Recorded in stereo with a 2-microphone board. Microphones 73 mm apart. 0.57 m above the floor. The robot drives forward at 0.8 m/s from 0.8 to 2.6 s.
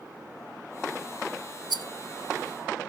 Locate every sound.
1.7 s a rattle: 75° right (ahead or behind), 0.7 m; by 1.9 s 70° right (ahead or behind), 0.7 m